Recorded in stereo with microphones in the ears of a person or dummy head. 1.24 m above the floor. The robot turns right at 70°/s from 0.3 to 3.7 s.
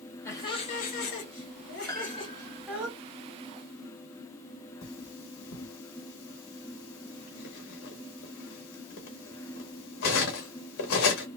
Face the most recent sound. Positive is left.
turn(degrees=60)  # may be behind; listen again after turning